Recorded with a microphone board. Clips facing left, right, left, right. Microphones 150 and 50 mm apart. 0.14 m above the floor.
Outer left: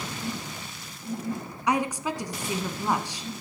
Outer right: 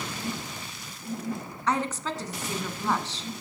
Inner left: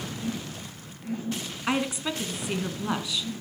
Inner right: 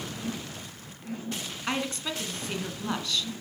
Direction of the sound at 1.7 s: 10° left (ahead or behind).